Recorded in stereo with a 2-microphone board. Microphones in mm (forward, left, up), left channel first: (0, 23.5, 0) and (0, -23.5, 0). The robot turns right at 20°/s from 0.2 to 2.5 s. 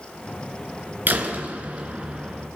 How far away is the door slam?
About 4 m.